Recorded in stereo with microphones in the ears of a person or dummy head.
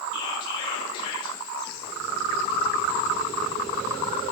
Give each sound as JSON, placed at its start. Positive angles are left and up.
{"t": 0.1, "sound": "whispering", "side_deg": 25, "distance_m": 1.1}